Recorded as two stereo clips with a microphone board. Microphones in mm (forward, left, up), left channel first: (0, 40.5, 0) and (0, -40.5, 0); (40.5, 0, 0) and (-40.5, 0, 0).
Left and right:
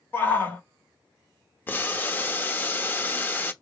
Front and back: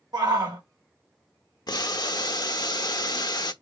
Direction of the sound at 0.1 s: 155° left.